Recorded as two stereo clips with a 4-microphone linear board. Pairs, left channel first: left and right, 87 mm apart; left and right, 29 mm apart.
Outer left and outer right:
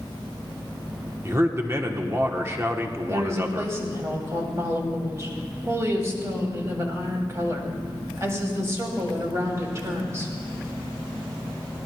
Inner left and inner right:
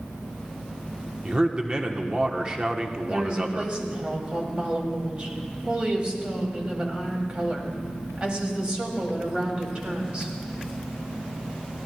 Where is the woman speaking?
35° right (ahead or behind), 3 m.